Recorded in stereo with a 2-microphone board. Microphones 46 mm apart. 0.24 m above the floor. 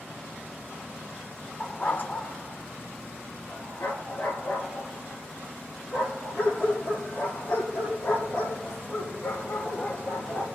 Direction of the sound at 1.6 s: 30° left (ahead or behind).